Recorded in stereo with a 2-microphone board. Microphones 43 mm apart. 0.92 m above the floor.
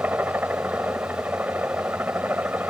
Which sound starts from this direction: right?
A helicopter, at 0.0 s.